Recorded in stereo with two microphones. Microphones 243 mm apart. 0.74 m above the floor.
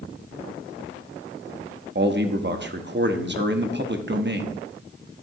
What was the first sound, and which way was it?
A man speaking, 45° right (ahead or behind).